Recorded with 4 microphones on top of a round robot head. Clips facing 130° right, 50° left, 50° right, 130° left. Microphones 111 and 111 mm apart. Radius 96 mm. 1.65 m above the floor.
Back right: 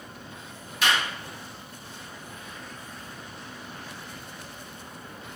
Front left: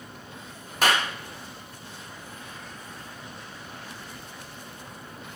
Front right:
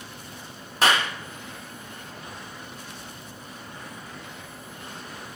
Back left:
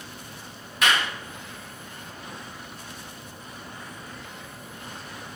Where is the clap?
5° left, 0.9 m.